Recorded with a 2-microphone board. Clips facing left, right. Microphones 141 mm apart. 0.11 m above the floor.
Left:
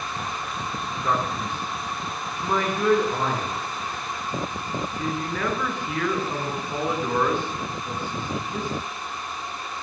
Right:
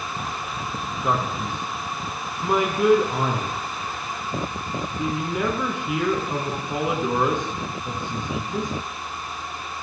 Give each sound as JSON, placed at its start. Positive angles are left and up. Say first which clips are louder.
{"t": 1.0, "sound": "a man speaking", "louder": "right 1 dB", "side_deg": -15, "distance_m": 1.4}